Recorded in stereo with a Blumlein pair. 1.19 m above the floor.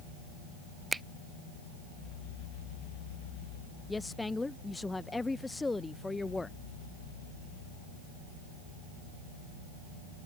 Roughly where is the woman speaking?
Ahead.